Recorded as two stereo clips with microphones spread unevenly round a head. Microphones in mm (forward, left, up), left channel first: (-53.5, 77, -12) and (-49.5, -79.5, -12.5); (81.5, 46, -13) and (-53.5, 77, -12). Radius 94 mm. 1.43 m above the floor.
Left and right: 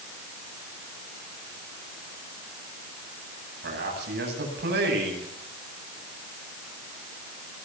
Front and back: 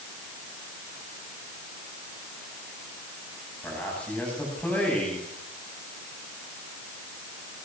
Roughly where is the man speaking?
Right.